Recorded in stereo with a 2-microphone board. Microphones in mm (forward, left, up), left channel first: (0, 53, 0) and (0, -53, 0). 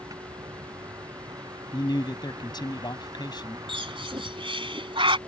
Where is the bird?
55° right (ahead or behind).